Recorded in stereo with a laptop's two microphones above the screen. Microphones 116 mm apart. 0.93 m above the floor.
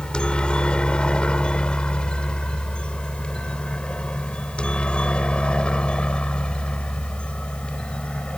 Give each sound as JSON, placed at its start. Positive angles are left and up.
{"t": 0.0, "sound": "a helicopter", "side_deg": 5}